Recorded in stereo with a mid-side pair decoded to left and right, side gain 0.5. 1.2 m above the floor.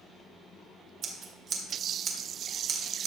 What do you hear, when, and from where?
1.0 s scissors: 55° right, 1.7 m